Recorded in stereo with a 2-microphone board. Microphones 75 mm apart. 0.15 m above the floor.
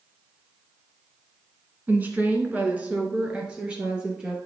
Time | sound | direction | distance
1.9 | a woman speaking | 25° right (ahead or behind) | 1.5 m